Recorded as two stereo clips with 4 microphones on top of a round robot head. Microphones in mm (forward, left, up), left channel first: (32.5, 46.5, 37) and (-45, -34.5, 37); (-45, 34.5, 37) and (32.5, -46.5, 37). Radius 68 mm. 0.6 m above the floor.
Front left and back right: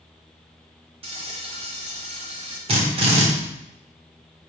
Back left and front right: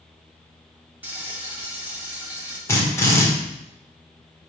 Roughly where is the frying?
Behind right.